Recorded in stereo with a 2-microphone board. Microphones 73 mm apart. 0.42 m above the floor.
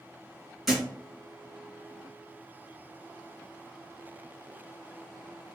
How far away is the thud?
About 2.5 m.